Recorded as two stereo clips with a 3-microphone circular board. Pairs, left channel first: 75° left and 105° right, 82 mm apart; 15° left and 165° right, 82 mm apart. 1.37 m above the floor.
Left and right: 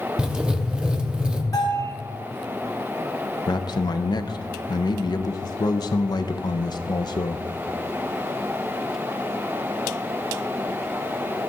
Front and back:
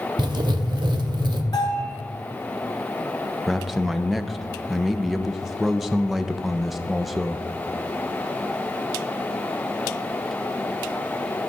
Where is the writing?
175° left, 0.8 m.